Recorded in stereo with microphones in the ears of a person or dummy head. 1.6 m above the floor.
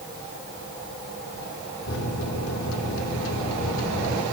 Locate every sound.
1.9 s a microwave: 75° left (ahead or behind), 3.5 m